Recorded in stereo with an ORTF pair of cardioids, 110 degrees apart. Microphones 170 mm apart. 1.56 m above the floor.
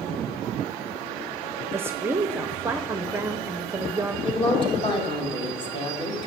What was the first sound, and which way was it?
A woman speaking, 15° right.